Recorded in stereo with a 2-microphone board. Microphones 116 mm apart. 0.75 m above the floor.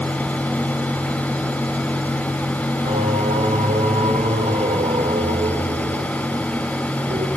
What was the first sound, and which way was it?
Singing, 65° right (ahead or behind).